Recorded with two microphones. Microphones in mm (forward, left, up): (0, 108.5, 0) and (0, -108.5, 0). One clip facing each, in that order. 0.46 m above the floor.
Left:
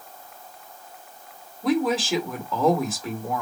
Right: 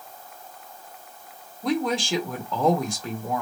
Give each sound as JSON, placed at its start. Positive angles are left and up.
{"t": 1.6, "sound": "a woman speaking", "side_deg": 5, "distance_m": 1.1}